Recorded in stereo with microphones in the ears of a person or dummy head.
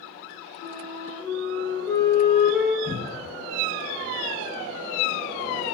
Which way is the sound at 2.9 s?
55° right (ahead or behind).